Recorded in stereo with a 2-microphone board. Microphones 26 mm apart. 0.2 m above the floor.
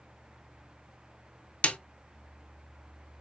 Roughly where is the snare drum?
Left.